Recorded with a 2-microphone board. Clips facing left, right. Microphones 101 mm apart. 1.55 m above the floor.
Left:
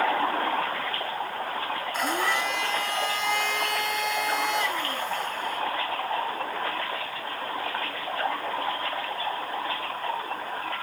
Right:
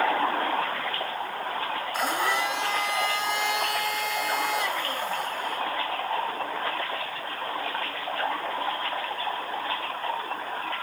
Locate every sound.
1.9 s a blender: 10° right (ahead or behind), 4.5 m